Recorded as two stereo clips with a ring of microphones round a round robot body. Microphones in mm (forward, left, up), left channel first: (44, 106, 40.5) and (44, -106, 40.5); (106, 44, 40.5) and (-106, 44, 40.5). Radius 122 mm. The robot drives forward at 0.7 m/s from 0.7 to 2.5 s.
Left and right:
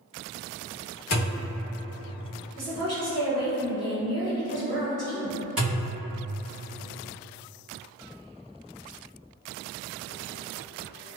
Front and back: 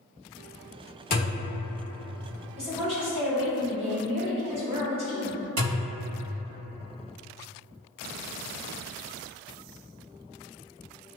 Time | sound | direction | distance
1.1 | a thud | 45° left | 1.0 m
2.6 | a woman speaking | 140° right | 1.9 m
5.6 | a thud | 175° right | 1.5 m